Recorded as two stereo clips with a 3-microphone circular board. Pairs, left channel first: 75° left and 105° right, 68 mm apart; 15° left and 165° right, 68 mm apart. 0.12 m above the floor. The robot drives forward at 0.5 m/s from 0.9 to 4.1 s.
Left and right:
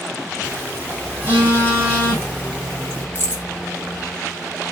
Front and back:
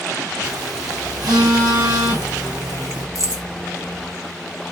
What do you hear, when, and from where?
0.4 s a phone buzzing: 165° right, 2.5 m; by 3.0 s 170° right, 3.5 m
3.1 s keys jangling: 155° right, 1.9 m